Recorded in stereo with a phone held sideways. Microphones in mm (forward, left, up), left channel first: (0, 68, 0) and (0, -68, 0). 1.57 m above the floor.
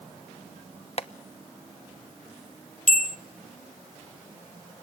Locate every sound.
1.0 s tapping: 45° left (ahead or behind), 0.9 m
2.9 s a bell: 70° left (ahead or behind), 0.5 m